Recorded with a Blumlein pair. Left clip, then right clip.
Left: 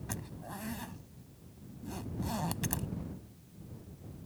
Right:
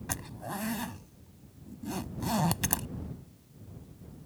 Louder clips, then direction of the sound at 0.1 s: Right 7 dB; 20° right.